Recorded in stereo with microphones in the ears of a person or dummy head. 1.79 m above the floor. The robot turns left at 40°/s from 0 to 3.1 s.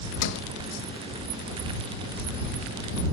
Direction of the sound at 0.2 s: 70° left (ahead or behind).